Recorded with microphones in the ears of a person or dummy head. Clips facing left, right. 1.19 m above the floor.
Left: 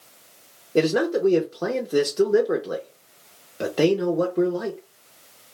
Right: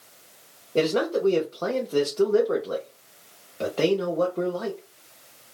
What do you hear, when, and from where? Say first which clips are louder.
0.8 s a man speaking: left 3 dB; 20° left (ahead or behind), 0.6 m